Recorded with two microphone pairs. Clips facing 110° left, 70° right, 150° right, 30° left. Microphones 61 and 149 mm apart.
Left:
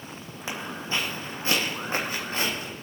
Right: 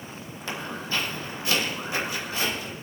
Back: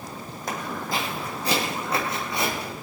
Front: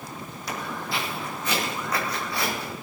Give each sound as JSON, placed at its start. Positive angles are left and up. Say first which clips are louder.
{"t": 0.5, "sound": "footsteps", "louder": "even, back 2 dB", "azimuth_deg": 180, "distance_m": 2.5}